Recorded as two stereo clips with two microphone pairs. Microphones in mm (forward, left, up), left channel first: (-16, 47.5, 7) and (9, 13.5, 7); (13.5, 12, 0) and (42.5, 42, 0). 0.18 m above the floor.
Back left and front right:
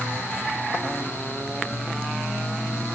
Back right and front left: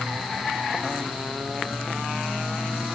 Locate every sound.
Only background noise.